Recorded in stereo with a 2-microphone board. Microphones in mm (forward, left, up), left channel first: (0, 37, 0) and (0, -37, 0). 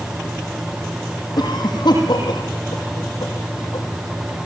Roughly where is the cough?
Left.